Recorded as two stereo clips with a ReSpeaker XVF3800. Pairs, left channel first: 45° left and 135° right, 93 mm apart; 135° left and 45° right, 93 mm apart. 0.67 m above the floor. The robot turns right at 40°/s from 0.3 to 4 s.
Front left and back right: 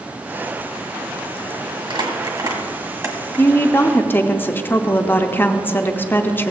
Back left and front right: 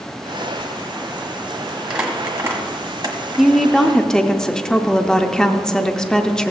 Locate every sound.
1.9 s crumpling: 125° right, 1.5 m; by 3.5 s 65° right, 1.5 m
3.4 s a woman speaking: 40° left, 0.6 m; by 6.5 s 65° left, 0.6 m